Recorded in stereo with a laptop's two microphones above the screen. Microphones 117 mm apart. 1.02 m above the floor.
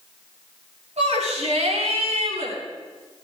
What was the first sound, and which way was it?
A shout, 85° right.